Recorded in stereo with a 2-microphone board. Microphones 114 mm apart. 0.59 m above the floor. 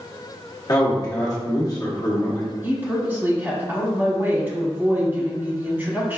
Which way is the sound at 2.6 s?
20° right (ahead or behind).